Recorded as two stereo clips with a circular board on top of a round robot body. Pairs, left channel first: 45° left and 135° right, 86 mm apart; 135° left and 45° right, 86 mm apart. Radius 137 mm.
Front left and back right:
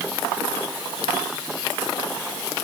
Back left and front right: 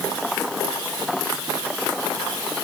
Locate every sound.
Only background noise.